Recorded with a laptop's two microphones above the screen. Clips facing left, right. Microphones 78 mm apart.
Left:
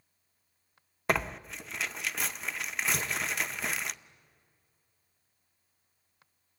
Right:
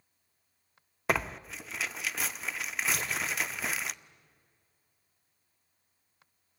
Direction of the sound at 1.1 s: Centre (ahead or behind).